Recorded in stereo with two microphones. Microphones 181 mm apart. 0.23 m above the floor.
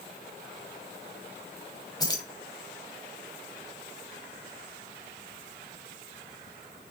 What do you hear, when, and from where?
2.0 s keys jangling: 20° left (ahead or behind), 1.0 m